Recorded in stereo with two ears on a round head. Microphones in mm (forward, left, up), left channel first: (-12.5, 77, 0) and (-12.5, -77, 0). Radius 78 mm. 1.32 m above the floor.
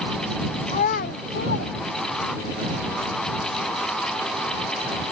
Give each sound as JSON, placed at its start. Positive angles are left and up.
{"t": 0.7, "sound": "a child speaking", "side_deg": 30}